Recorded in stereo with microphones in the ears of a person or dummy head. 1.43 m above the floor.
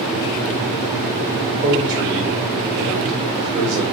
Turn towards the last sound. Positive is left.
turn(degrees=-60)  # may be behind; listen again after turning